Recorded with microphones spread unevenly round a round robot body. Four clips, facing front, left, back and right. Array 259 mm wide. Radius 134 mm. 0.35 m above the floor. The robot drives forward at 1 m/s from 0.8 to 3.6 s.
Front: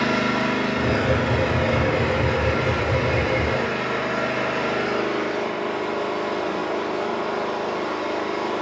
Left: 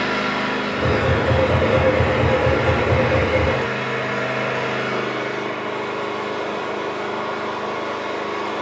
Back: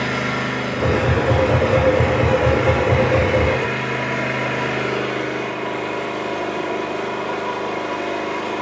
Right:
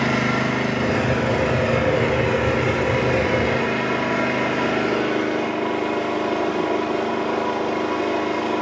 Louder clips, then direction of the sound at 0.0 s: Right 1 dB, front 1 dB; 75° right.